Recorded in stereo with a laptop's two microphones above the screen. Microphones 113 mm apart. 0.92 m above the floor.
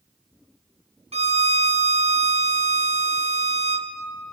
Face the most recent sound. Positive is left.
turn(degrees=-65)  # may be behind; listen again after turning